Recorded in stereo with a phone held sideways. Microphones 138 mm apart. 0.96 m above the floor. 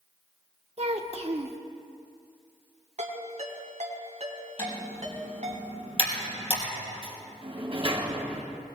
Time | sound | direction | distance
0.8 | a child speaking | 50° right (ahead or behind) | 1.1 m
3.0 | a ringtone | 60° right (ahead or behind) | 3 m
4.6 | typing on a keyboard | 40° left (ahead or behind) | 5 m
7.0 | a sliding door | 40° right (ahead or behind) | 1.9 m